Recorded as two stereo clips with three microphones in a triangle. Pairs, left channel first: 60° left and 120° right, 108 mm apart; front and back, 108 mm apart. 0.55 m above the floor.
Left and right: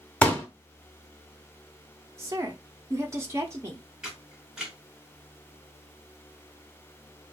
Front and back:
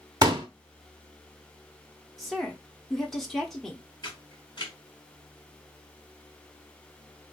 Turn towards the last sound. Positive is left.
turn(degrees=-35)